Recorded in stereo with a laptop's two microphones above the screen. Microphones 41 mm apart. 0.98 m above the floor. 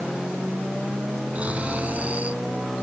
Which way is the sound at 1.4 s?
40° right (ahead or behind).